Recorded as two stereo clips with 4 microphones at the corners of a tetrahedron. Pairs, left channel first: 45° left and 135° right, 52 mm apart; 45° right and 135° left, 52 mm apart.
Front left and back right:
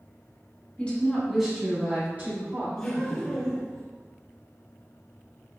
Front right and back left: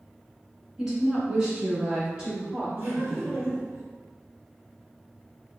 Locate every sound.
0.8 s a woman speaking: 65° left, 1.6 m; by 2.7 s 150° right, 2 m
2.8 s laughter: 110° left, 1.5 m